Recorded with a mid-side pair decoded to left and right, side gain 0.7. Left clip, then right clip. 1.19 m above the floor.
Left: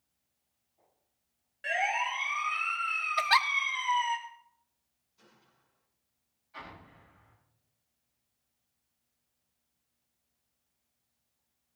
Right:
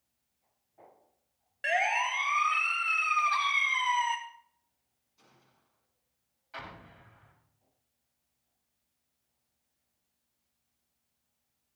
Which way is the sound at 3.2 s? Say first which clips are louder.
Left 2 dB; 65° left.